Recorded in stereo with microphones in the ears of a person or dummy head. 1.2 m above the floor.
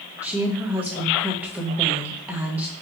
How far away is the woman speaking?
About 0.7 m.